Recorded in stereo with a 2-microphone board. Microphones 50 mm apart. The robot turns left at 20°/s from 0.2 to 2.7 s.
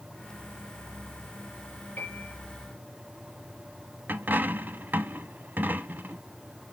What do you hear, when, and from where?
2.0 s a piano: 30° left (ahead or behind), 3.5 m; by 2.4 s 40° left (ahead or behind), 3.5 m
4.1 s a dropped coin: 40° right (ahead or behind), 0.6 m